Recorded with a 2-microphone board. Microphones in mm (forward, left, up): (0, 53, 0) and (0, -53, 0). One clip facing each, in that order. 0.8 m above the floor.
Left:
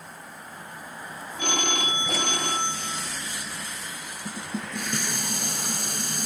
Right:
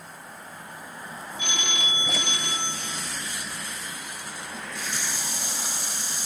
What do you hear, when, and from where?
1.4 s a phone ringing: 50° left (ahead or behind), 0.8 m
4.2 s dishes clattering: 60° left (ahead or behind), 0.6 m